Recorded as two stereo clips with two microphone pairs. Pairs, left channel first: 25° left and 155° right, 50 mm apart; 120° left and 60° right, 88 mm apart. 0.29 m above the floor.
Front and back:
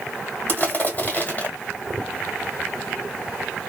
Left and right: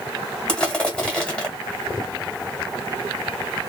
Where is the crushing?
50° left, 1.4 m.